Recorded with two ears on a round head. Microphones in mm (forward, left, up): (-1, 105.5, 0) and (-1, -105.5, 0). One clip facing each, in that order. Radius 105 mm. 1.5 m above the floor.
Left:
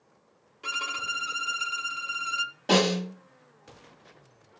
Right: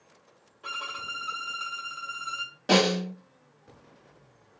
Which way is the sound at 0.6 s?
35° left (ahead or behind).